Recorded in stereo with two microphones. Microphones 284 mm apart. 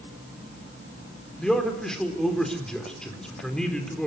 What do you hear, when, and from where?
1.4 s a man speaking: 5° left (ahead or behind), 4 m